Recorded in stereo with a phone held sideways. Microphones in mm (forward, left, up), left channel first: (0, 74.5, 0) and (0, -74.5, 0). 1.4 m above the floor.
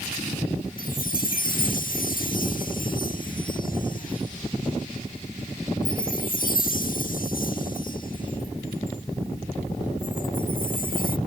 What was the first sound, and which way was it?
A chime, 70° left (ahead or behind).